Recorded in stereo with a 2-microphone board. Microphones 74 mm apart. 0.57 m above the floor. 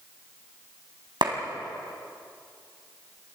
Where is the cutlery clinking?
I don't hear cutlery clinking.